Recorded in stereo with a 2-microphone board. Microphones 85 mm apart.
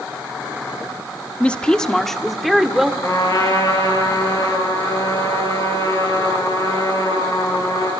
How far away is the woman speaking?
About 1.2 m.